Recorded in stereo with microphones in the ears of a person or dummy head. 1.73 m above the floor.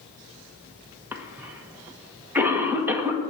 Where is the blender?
I don't hear a blender.